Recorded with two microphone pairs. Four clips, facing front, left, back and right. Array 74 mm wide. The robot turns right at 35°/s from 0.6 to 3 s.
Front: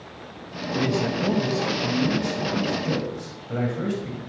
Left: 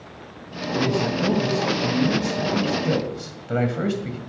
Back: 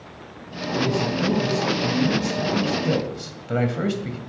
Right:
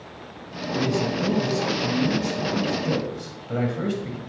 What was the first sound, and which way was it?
A man speaking, 40° left.